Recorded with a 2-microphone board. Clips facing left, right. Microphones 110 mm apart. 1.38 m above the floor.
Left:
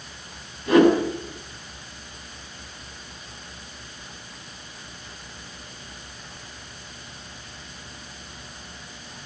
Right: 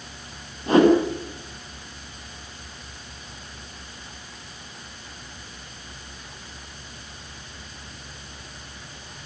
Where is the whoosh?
35° right (ahead or behind), 9 m.